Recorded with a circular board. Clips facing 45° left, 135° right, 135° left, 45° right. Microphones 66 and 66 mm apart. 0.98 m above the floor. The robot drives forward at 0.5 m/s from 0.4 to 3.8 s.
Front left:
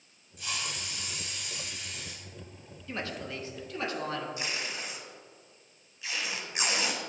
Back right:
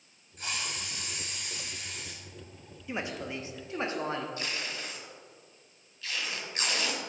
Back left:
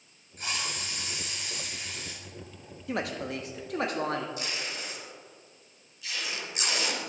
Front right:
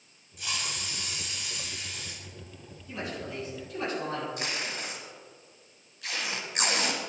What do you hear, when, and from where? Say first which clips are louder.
0.4 s a hiss: even, back left 1 dB; straight behind, 2.0 m
2.9 s a woman speaking: back right 1 dB, back left 4 dB; 150° left, 1.0 m; by 4.3 s 160° left, 1.4 m
4.4 s tape being pulled: front left 1 dB, front right 2 dB; 25° right, 1.4 m